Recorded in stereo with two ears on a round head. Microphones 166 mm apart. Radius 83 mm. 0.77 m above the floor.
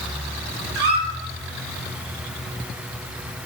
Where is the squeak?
55° right (ahead or behind), 1.0 m.